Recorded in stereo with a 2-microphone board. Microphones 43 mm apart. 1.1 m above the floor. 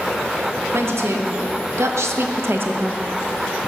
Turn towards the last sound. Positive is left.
turn(degrees=-40)  # may be behind; listen again after turning